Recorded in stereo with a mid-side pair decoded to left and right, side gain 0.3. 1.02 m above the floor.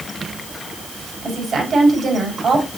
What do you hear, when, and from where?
1.2 s a woman speaking: 65° right, 5.5 m